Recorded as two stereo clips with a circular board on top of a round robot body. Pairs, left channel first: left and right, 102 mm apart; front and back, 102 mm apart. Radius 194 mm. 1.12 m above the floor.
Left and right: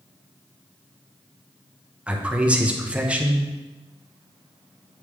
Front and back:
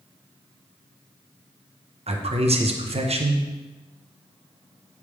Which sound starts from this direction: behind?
A man speaking, at 2.1 s.